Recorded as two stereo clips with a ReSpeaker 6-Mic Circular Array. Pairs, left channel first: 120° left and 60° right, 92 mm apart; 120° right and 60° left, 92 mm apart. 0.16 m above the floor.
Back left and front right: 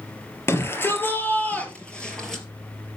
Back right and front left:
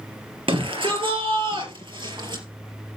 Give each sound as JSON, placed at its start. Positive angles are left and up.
{"t": 0.5, "sound": "a shout", "azimuth_deg": 60, "distance_m": 3.0}